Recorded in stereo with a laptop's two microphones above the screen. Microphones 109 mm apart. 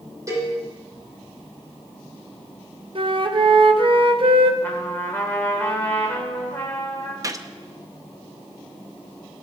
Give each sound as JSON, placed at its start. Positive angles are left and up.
{"t": 0.3, "sound": "a cowbell", "side_deg": -30, "distance_m": 7.5}
{"t": 3.0, "sound": "a flute", "side_deg": -50, "distance_m": 0.8}
{"t": 4.6, "sound": "a trumpet", "side_deg": 15, "distance_m": 3.5}
{"t": 7.2, "sound": "a gunshot", "side_deg": -30, "distance_m": 0.7}